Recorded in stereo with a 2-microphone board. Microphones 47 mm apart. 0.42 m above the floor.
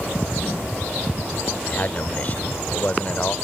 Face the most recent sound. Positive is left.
turn(degrees=35)  # may be behind; listen again after turning